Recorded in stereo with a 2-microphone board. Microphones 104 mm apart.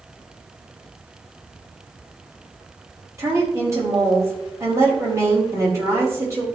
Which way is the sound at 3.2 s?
30° right (ahead or behind).